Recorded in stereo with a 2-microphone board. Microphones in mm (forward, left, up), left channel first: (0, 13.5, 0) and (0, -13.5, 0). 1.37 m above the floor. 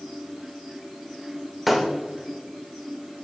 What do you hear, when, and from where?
1.7 s breaking glass: 5° right (ahead or behind), 2.5 m